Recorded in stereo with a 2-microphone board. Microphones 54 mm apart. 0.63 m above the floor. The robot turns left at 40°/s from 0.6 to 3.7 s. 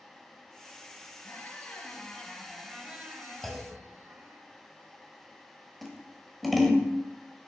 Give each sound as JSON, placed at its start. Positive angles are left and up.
{"t": 1.2, "sound": "a squeak", "azimuth_deg": 45, "distance_m": 1.3}
{"t": 3.4, "sound": "a clunk", "side_deg": 5, "distance_m": 1.2}
{"t": 5.8, "sound": "scissors", "side_deg": 0, "distance_m": 1.0}